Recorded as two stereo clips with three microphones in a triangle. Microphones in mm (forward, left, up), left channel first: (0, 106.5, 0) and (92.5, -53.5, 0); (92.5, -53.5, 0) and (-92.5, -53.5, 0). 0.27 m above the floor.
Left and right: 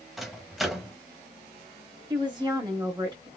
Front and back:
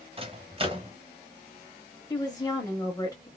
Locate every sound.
0.2 s a microwave: 150° right, 0.9 m
2.1 s a woman speaking: 40° right, 1.0 m